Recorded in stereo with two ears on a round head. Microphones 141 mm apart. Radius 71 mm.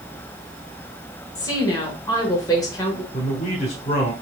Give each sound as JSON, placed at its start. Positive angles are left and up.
{"t": 1.4, "sound": "a woman speaking", "side_deg": 25, "distance_m": 1.2}
{"t": 3.1, "sound": "a man speaking", "side_deg": 45, "distance_m": 1.2}